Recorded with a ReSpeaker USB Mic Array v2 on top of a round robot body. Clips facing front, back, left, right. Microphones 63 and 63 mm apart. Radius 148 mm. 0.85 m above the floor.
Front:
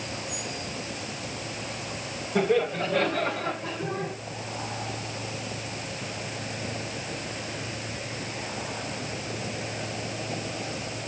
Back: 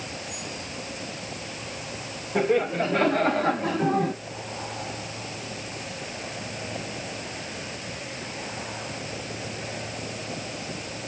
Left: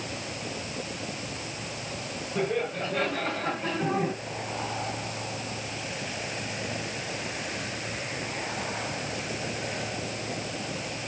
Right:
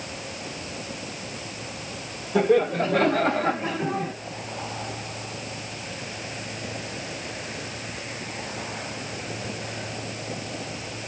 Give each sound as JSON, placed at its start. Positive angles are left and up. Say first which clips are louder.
{"t": 2.4, "sound": "laughter", "louder": "back 1 dB, right 9 dB", "azimuth_deg": -110, "distance_m": 2.5}